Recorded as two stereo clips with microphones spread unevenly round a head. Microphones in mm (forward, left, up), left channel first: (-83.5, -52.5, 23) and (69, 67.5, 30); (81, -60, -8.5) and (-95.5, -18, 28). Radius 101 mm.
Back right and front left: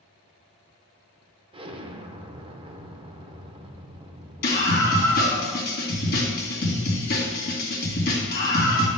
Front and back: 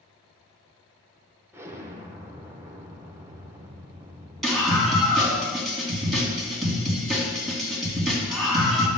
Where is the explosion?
80° left, 0.8 m.